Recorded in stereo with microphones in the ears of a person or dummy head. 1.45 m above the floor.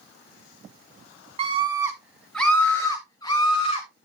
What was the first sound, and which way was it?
A scream, 40° right (ahead or behind).